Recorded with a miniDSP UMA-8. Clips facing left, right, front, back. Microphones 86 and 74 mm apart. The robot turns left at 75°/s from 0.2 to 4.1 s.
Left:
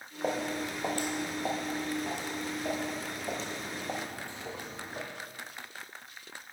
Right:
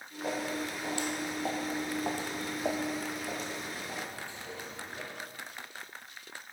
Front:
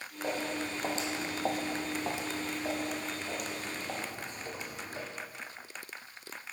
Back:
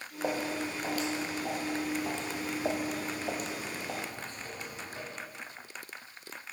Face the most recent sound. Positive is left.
turn(degrees=60)